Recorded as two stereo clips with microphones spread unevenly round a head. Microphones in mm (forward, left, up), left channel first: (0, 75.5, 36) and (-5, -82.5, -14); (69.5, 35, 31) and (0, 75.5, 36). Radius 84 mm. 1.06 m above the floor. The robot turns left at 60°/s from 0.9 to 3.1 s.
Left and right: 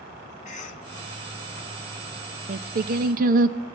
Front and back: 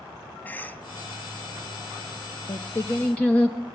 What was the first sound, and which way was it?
A cough, 35° left.